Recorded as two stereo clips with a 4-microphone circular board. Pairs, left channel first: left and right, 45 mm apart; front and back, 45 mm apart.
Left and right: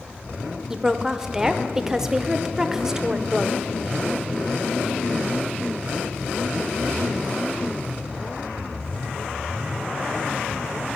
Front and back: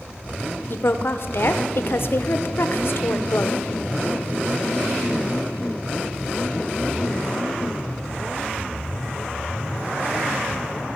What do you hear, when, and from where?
0.7 s a woman speaking: 10° right, 0.7 m